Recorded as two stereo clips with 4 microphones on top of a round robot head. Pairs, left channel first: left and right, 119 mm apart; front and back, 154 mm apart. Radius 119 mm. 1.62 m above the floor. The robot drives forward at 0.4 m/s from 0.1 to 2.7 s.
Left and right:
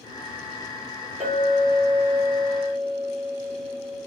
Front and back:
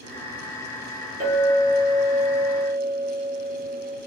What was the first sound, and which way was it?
A clink, 170° right.